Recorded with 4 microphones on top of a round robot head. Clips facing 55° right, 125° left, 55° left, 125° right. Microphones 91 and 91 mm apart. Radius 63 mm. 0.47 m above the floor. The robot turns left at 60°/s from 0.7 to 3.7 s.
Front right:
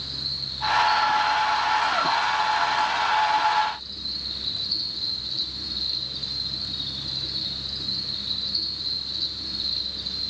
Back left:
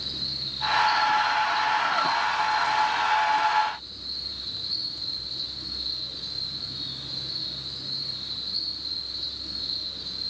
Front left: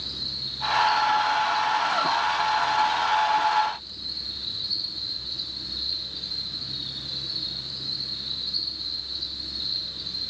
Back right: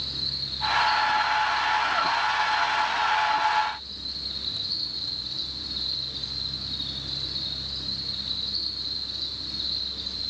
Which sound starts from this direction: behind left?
An insect, at 0.0 s.